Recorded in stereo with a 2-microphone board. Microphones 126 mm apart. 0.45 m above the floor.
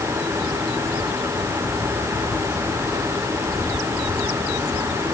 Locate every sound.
Only background noise.